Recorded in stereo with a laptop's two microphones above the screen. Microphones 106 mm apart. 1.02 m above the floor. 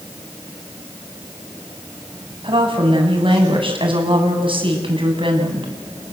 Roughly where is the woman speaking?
Right.